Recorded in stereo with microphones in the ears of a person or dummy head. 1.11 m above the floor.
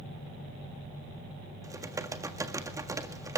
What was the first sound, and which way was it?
Typing on a keyboard, 20° right (ahead or behind).